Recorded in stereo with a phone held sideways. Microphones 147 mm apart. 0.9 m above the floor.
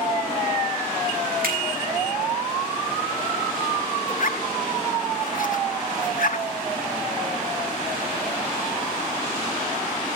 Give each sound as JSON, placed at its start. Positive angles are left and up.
{"t": 1.4, "sound": "a finger snap", "side_deg": -80, "distance_m": 6.5}
{"t": 4.1, "sound": "a zipper", "side_deg": 65, "distance_m": 0.9}